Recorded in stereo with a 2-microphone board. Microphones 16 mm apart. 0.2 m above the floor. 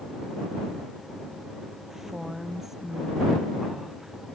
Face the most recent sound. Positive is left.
turn(degrees=-15)  # may be behind; listen again after turning